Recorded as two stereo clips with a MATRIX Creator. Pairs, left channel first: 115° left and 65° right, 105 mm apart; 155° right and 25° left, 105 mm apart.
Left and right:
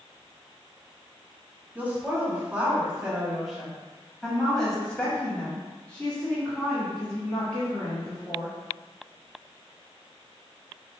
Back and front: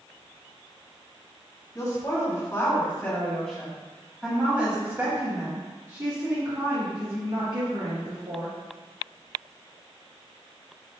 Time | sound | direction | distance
1.8 | a woman speaking | 130° right | 1.8 m